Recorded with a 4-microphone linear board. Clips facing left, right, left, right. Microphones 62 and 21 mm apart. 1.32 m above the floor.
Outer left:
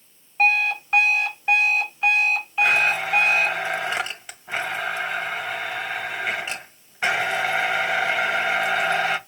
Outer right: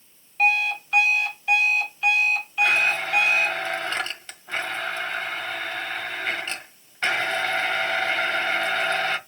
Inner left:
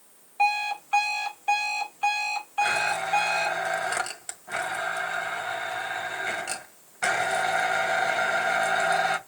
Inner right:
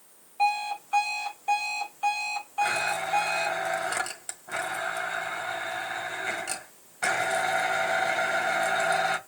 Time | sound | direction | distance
0.4 | an alarm clock | 25° left (ahead or behind) | 4 m
2.6 | a blender | 10° left (ahead or behind) | 1.4 m